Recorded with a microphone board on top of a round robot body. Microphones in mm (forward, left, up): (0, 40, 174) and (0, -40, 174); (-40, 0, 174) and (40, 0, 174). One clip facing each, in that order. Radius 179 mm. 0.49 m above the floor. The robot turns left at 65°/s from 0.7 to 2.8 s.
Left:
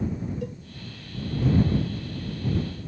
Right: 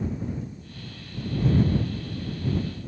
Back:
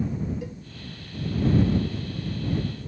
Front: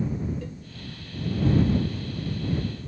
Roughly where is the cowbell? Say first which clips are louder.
Left 5 dB, back 2 dB; left.